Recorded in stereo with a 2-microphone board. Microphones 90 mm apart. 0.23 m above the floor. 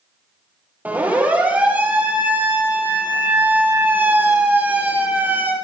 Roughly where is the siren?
Centre.